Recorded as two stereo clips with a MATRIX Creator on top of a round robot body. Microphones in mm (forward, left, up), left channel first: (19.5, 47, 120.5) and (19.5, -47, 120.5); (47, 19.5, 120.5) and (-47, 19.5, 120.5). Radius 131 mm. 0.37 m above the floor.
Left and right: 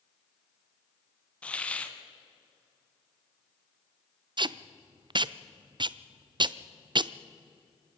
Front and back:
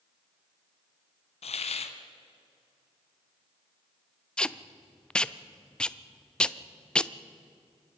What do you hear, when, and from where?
1.4 s a hiss: 10° left, 1.4 m
4.4 s tape being pulled: 80° right, 0.7 m